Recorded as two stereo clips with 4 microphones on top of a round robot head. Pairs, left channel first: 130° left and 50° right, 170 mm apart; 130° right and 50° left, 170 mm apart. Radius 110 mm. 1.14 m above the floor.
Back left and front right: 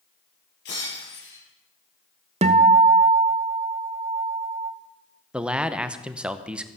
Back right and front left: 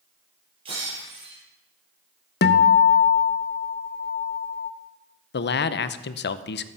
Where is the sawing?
No sawing in this recording.